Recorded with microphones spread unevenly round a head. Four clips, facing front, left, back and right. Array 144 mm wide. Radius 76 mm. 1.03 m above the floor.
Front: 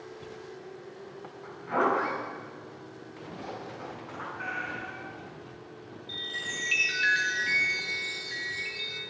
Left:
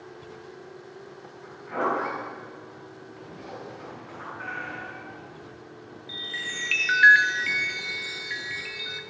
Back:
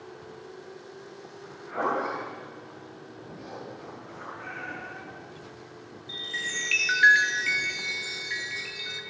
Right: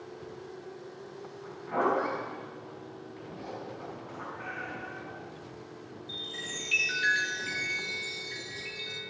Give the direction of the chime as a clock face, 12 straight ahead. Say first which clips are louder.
Left 7 dB, back 3 dB; 8 o'clock.